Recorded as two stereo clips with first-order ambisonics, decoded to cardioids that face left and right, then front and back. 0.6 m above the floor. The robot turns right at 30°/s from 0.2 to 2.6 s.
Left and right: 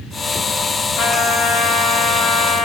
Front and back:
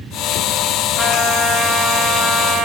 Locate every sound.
1.0 s a trumpet: 75° left, 0.7 m; by 2.7 s 125° left, 0.7 m